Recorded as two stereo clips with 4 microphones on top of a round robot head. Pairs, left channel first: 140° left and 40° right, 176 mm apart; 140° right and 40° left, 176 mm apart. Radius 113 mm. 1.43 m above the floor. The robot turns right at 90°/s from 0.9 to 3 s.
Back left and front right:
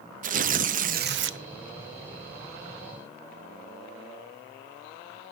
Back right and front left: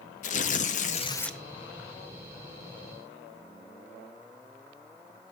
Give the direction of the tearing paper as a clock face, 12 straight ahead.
3 o'clock.